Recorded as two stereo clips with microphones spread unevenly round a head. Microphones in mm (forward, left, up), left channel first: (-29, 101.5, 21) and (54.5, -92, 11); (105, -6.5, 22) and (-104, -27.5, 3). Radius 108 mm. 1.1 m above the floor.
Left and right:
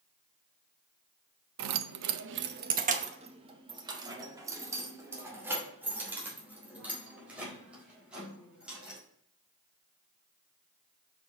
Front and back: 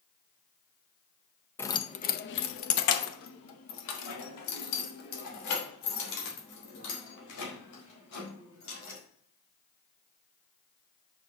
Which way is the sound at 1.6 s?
75° right.